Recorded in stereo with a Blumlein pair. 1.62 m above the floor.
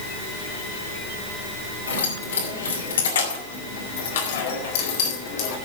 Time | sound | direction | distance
1.9 | keys jangling | 70° left | 6 m